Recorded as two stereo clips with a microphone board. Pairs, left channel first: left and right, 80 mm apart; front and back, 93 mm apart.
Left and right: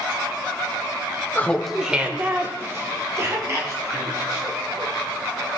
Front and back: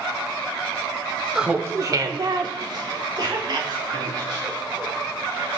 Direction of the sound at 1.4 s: 100° left.